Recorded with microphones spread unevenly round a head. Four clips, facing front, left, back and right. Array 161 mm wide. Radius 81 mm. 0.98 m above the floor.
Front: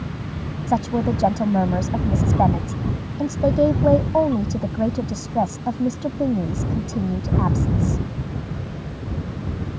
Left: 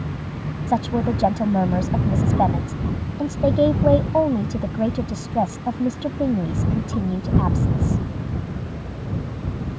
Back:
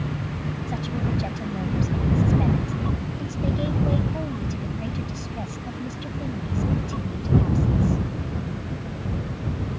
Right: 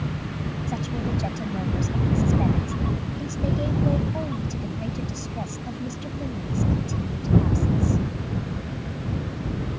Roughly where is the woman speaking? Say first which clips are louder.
Left 10 dB, front 10 dB; ahead left.